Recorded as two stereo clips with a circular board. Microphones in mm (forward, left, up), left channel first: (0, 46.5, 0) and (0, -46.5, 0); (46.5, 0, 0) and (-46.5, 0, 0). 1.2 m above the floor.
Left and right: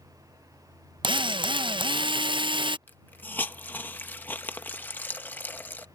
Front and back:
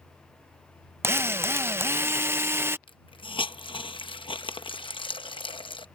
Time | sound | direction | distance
1.0 | a drill | 115° right | ?
2.9 | a hiss | 20° left | ?